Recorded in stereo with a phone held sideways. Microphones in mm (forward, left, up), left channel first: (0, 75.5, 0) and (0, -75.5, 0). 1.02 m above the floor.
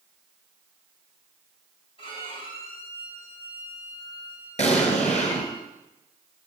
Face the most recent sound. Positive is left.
turn(degrees=50)  # may be behind; listen again after turning